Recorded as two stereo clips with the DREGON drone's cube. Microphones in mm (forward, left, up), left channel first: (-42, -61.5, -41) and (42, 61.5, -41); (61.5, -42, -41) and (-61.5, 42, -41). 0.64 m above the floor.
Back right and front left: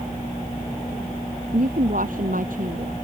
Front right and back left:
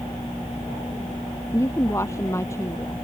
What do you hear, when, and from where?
1.5 s a woman speaking: 35° left